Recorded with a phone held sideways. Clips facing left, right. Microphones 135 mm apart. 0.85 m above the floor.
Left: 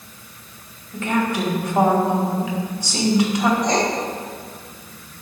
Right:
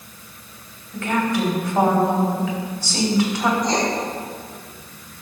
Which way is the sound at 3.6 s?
65° left (ahead or behind).